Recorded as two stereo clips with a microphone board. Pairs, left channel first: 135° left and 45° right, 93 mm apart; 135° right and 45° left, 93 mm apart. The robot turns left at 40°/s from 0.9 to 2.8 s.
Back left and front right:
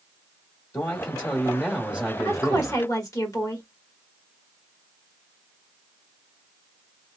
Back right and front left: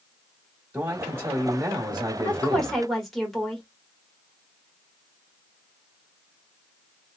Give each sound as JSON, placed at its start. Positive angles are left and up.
{"t": 0.7, "sound": "a man speaking", "azimuth_deg": 110, "distance_m": 1.0}
{"t": 2.2, "sound": "a woman speaking", "azimuth_deg": 160, "distance_m": 1.4}